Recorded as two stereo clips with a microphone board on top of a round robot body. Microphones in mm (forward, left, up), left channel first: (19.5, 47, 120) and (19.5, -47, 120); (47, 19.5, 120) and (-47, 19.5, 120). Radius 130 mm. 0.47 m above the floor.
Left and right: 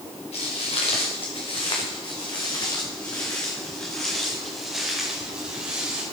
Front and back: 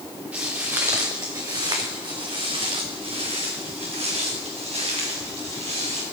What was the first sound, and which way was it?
Footsteps, 105° left.